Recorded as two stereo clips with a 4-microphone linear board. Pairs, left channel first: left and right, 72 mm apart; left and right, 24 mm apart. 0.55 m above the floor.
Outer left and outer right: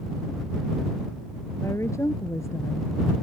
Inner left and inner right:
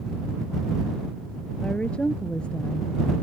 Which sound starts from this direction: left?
A woman speaking, at 1.6 s.